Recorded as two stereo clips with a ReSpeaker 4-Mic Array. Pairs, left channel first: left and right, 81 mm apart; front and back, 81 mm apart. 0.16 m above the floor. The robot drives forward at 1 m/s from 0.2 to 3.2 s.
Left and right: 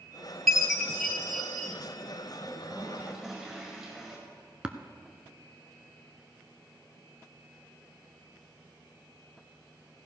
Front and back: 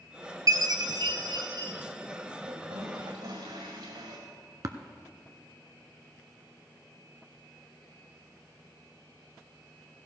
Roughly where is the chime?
Behind.